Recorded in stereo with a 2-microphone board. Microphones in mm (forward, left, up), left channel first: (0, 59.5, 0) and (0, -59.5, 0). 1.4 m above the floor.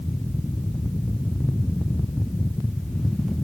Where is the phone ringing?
No phone ringing in this recording.